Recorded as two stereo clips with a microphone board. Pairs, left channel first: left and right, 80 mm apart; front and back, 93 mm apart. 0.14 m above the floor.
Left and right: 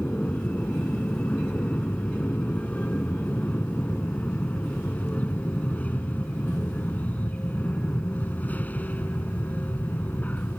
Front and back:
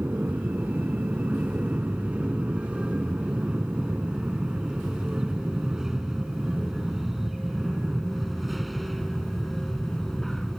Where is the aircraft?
135° left; by 10.6 s 80° left.